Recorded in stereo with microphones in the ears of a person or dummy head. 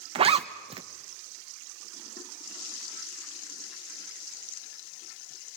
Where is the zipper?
35° right (ahead or behind), 0.9 m.